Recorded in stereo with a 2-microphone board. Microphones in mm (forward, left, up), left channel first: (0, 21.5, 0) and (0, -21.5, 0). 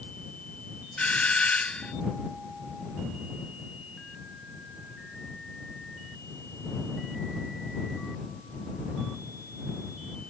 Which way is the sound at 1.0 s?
30° left (ahead or behind).